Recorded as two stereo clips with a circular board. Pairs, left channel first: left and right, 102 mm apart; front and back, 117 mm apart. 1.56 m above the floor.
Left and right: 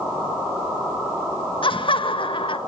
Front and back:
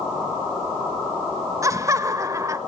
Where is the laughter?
115° left, 1.5 m.